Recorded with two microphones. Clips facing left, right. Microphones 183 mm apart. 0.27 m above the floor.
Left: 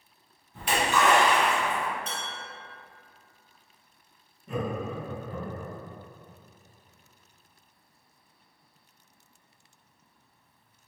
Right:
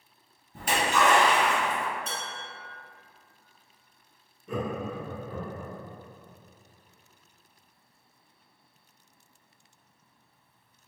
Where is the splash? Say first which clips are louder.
Even; 45° right (ahead or behind), 1.9 m.